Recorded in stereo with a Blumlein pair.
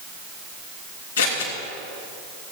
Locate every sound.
1.2 s scissors: 65° left, 2.5 m